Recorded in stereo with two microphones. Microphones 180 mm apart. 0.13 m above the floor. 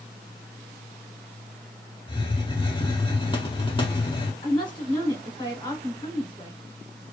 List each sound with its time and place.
2.1 s a hiss: 30° left (ahead or behind), 0.5 m
4.4 s a woman speaking: 25° left (ahead or behind), 1.2 m